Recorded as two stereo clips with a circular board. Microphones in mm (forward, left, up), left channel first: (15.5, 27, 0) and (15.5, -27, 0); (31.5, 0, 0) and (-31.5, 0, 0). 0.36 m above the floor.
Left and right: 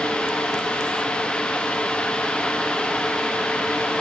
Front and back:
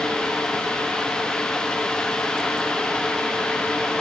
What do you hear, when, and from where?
Only background noise.